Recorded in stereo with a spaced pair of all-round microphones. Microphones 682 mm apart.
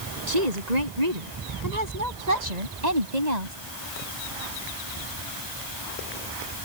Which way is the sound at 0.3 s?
75° right (ahead or behind).